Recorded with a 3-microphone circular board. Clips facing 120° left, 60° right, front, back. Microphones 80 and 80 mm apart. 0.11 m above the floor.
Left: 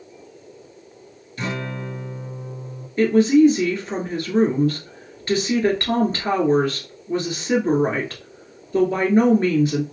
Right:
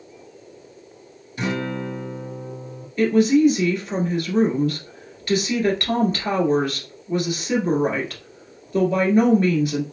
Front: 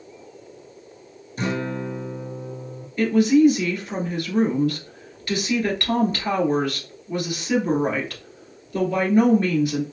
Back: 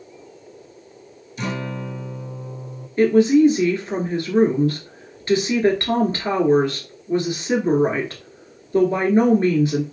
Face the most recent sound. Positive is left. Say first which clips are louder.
# left 2 dB, back 3 dB
turn(degrees=150)